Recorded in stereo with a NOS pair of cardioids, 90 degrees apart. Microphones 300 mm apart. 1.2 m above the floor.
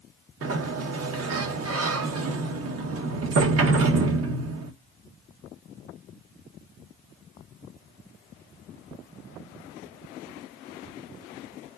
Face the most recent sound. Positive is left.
turn(degrees=-55)